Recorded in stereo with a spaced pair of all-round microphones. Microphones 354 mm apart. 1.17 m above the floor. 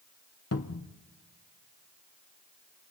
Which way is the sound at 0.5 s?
45° left (ahead or behind).